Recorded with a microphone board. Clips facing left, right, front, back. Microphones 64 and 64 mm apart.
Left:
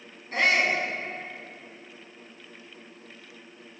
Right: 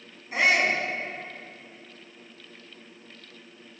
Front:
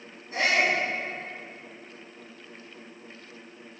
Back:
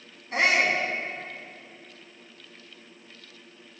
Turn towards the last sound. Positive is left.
turn(degrees=-170)